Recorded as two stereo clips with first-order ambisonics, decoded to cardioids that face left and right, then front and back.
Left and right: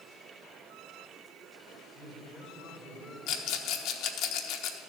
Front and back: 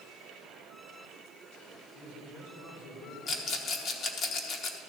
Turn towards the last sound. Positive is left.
turn(degrees=60)